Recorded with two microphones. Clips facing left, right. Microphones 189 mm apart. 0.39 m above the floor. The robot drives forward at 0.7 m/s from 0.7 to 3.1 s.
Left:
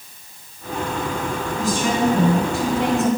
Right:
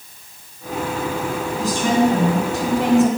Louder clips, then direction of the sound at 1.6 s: Right 3 dB; 35° right (ahead or behind).